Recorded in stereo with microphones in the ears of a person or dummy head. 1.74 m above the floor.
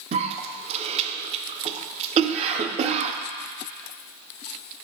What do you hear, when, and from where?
0.1 s a cough: 35° right (ahead or behind), 0.9 m